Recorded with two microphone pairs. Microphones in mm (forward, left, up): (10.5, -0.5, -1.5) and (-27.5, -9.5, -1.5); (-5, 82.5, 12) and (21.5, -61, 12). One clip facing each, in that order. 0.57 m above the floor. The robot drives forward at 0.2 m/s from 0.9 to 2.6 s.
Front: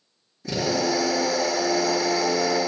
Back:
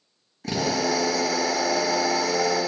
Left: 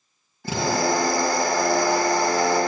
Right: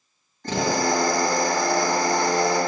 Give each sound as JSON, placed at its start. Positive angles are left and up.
{"t": 0.4, "sound": "a drill", "azimuth_deg": 180, "distance_m": 3.0}